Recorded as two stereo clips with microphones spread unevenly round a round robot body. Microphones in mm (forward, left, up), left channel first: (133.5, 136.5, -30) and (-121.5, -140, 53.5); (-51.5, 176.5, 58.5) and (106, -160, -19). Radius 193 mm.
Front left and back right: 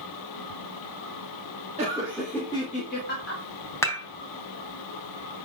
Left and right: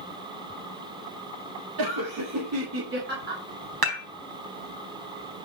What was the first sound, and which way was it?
Laughter, 55° right.